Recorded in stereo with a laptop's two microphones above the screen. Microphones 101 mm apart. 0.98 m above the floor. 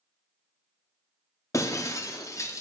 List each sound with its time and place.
1.5 s breaking glass: 30° left (ahead or behind), 0.6 m